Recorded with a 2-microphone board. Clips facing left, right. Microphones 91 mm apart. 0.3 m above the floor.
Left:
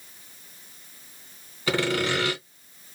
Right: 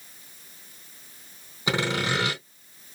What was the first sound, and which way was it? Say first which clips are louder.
Sawing: left 2 dB; 20° right (ahead or behind).